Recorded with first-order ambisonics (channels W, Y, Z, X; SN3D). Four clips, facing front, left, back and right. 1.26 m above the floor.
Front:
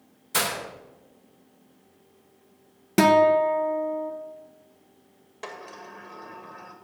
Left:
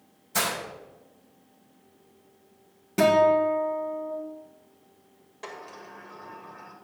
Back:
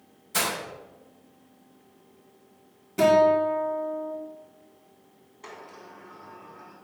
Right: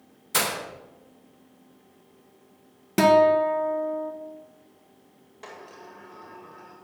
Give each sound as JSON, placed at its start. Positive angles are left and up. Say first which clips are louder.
{"t": 0.3, "sound": "breaking glass", "louder": "right 2 dB, front 1 dB", "azimuth_deg": -65, "distance_m": 3.0}
{"t": 3.0, "sound": "a guitar", "louder": "right 2 dB, front 1 dB", "azimuth_deg": -30, "distance_m": 1.3}
{"t": 5.4, "sound": "a sliding door", "louder": "left 2 dB, front 4 dB", "azimuth_deg": 5, "distance_m": 1.8}